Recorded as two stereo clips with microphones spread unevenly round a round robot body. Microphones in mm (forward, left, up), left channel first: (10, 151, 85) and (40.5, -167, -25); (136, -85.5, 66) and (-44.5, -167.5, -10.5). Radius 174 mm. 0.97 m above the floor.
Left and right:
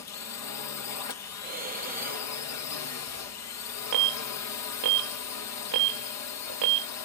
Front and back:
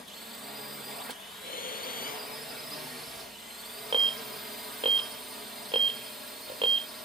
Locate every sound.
0.0 s a drone: 140° left
1.4 s breathing: 20° right
3.9 s an alarm: 95° right